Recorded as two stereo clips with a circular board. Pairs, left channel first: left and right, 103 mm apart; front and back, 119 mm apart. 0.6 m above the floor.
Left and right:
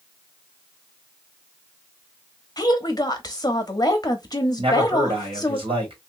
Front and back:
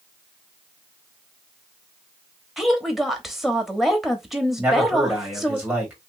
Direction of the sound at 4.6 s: 105° right.